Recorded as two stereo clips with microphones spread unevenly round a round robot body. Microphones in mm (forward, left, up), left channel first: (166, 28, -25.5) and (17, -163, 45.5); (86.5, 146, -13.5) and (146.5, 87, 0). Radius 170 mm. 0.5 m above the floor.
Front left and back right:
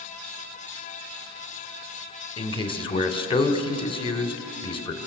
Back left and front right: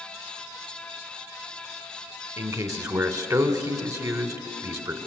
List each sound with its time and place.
2.4 s a man speaking: straight ahead, 2 m